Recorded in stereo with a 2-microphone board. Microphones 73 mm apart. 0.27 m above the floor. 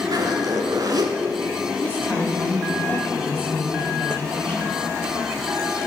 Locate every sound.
0.1 s a zipper: 65° right (ahead or behind), 0.8 m
1.8 s a woman speaking: 25° left (ahead or behind), 1.5 m